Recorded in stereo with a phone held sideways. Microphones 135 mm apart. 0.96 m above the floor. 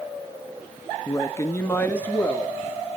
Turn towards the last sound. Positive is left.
turn(degrees=10)  # may be behind; listen again after turning